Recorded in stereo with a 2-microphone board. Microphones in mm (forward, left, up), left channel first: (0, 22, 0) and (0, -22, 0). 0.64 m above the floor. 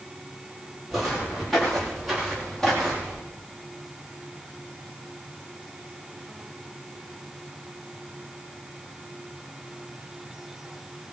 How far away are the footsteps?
About 9.5 m.